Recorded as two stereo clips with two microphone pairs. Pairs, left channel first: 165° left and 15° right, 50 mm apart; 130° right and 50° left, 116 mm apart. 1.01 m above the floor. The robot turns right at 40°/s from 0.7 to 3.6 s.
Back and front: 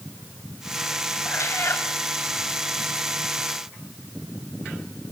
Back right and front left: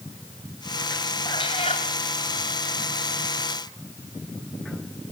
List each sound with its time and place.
1.2 s a cat meowing: 175° right, 3.5 m; by 1.9 s 150° right, 3.5 m